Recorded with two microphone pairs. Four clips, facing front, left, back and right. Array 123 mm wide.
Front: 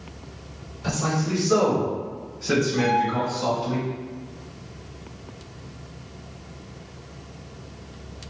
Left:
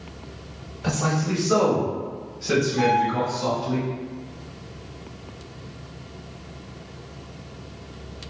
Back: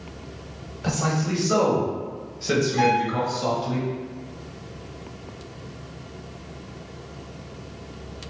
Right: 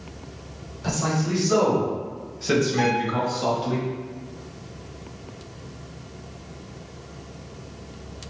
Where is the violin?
160° right, 0.6 m.